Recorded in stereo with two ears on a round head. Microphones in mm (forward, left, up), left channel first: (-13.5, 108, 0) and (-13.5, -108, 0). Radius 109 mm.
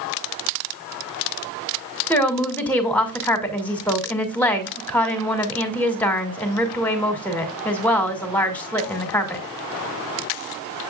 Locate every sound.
2.1 s a woman speaking: 5° left (ahead or behind), 2 m